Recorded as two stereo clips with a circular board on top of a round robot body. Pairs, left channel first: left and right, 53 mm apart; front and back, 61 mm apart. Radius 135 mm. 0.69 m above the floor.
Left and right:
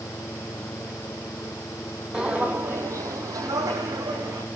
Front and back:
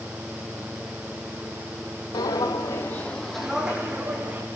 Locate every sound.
2.1 s footsteps: 15° right, 1.5 m; by 4.5 s 115° right, 2.5 m